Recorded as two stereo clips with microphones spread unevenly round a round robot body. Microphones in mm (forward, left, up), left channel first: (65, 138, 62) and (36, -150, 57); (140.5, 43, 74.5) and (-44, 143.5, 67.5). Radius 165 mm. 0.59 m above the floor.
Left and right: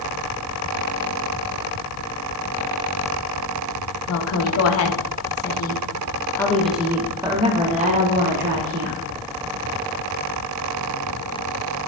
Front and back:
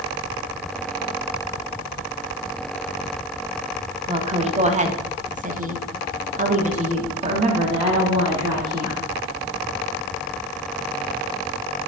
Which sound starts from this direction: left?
A woman speaking, at 4.1 s.